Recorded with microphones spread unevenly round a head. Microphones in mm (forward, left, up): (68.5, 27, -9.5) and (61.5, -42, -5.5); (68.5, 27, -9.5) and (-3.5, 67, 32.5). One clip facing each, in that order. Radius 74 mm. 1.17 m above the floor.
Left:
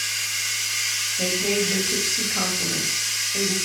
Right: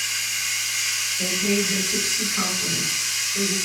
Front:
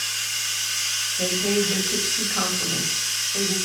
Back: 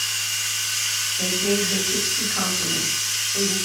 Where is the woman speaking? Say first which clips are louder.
Even, even; 50° left, 1.5 m.